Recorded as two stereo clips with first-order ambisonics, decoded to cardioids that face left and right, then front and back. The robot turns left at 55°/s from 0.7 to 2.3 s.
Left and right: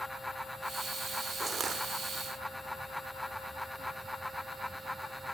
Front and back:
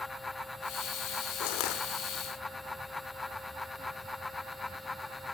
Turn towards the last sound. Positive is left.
turn(degrees=-55)